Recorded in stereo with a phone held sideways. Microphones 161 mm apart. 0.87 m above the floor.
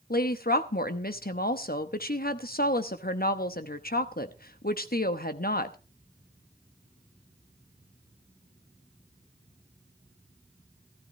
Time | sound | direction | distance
0.1 | a woman speaking | 65° left (ahead or behind) | 0.9 m